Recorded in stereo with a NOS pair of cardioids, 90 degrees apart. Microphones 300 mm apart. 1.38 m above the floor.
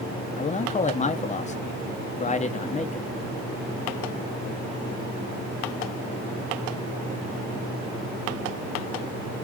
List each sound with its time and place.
0.4 s a man speaking: 25° left, 0.7 m